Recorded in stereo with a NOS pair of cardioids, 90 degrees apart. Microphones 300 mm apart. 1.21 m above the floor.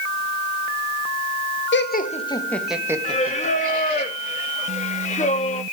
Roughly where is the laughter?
Ahead left.